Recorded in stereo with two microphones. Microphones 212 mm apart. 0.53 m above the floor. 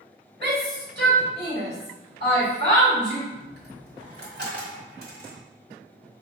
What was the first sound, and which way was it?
A shout, 50° right (ahead or behind).